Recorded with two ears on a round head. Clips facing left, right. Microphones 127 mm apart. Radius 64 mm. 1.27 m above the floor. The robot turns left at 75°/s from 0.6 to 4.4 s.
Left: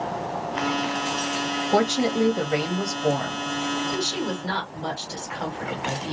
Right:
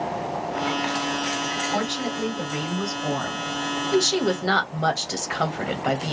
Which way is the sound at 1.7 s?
125° left.